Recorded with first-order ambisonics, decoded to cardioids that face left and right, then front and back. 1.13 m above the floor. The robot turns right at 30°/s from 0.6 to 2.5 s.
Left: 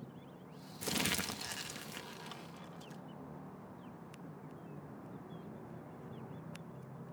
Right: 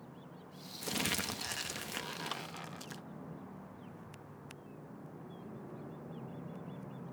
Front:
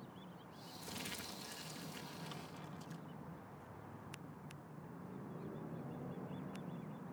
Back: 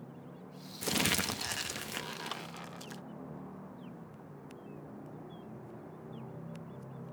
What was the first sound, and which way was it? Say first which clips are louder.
Crumpling: even, back 16 dB; 170° left.